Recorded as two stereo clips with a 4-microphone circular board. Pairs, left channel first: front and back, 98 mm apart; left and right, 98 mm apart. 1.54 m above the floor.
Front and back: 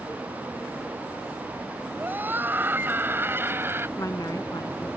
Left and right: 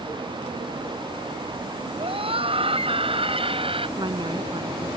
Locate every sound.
2.0 s a scream: 110° right; by 3.9 s 115° right
4.0 s a woman speaking: 55° right